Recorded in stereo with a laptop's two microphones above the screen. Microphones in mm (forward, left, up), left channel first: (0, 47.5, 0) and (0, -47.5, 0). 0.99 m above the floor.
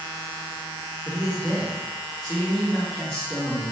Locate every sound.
1.1 s a man speaking: 5° right (ahead or behind), 1.7 m